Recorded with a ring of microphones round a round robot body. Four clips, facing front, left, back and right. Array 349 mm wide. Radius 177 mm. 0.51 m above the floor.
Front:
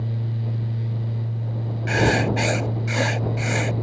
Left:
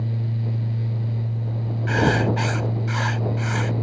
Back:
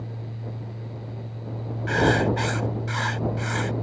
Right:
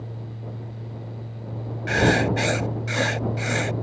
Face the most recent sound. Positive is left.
turn(degrees=-40)